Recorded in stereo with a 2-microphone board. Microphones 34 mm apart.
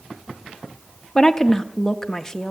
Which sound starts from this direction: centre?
A woman speaking, at 1.1 s.